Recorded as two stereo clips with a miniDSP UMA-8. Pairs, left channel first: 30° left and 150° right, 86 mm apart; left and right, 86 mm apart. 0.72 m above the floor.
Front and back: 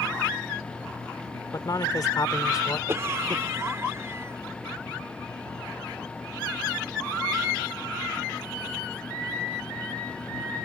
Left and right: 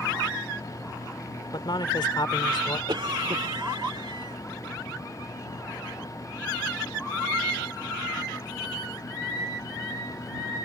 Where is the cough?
95° right.